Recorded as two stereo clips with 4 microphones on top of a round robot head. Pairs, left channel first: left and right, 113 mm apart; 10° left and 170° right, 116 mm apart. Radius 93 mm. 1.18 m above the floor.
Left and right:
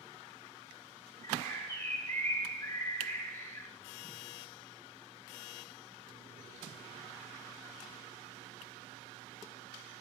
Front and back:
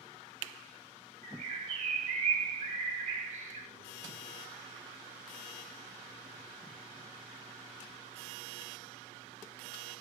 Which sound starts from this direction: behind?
A bird, at 1.2 s.